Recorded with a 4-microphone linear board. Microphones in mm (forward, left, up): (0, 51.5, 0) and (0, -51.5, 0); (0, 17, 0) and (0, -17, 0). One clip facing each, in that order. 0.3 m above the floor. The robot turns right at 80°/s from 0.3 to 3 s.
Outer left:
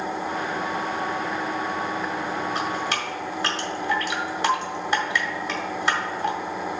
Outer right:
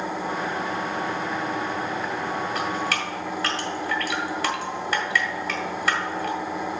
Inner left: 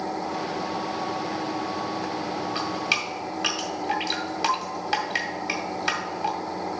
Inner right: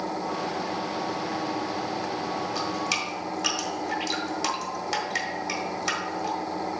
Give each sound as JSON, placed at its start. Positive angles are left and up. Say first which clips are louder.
{"t": 2.5, "sound": "dripping", "louder": "even, inner left 4 dB", "side_deg": 30, "distance_m": 1.7}